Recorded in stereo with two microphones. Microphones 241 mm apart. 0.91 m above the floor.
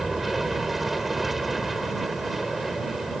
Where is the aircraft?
Centre (ahead or behind).